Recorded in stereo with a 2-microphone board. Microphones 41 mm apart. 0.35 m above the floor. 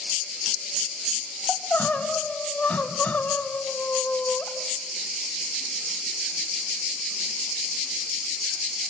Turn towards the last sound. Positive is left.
turn(degrees=40)  # may be behind; listen again after turning